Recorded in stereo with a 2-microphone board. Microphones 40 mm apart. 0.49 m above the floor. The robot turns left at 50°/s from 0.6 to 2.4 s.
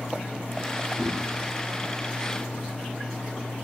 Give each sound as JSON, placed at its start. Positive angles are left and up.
{"t": 1.0, "sound": "a whoosh", "side_deg": -20, "distance_m": 3.0}